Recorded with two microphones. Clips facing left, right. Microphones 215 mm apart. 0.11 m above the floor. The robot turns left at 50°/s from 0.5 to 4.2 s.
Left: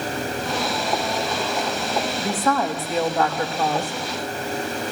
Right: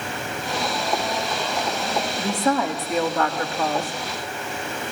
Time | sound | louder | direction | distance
2.2 | a woman speaking | right 2 dB | 145° right | 7.5 m